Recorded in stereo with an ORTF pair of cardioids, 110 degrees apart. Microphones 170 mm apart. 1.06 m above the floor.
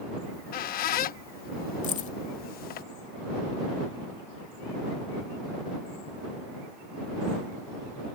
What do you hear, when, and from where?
0.2 s a squeak: 60° left
1.8 s keys jangling: 45° left